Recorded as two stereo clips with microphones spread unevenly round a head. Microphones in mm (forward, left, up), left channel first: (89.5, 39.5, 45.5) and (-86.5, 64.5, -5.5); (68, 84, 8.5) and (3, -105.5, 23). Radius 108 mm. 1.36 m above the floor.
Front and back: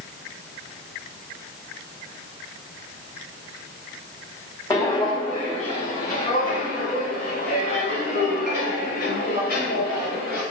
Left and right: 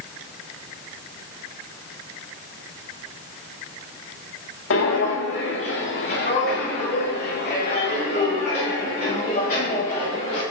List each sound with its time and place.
4.7 s footsteps: 55° left, 3 m; by 10.4 s 15° left, 7 m